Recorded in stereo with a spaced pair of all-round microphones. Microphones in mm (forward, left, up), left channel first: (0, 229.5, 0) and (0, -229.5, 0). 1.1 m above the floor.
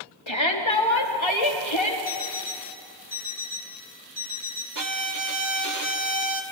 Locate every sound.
0.3 s a shout: 70° left (ahead or behind), 2.0 m
2.0 s an alarm clock: 85° left, 5 m
4.8 s a violin: 40° right (ahead or behind), 1.1 m